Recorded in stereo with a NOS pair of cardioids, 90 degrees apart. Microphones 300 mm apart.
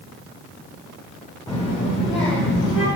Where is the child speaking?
10° left, 0.7 m; by 2.9 s 40° left, 2.5 m.